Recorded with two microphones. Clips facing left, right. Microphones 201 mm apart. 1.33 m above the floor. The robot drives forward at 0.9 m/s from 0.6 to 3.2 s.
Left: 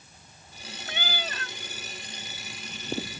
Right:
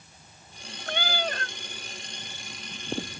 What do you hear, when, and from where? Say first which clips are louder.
0.9 s a cat meowing: right 6 dB; 65° right (ahead or behind); by 1.6 s 55° right (ahead or behind)